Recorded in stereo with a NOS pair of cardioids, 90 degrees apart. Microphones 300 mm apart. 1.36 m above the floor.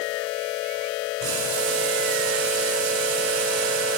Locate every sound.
1.2 s boiling: 65° right, 5 m